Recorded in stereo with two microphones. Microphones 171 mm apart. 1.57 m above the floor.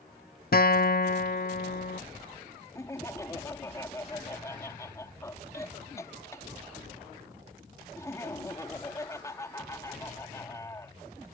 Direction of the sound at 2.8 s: 15° left (ahead or behind).